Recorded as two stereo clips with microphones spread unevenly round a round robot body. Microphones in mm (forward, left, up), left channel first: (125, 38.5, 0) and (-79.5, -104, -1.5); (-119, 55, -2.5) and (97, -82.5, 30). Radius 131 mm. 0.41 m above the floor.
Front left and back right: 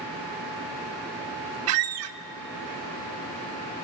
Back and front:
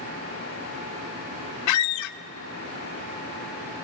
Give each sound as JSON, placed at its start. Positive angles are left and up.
{"t": 1.7, "sound": "a squeak", "azimuth_deg": 175, "distance_m": 0.5}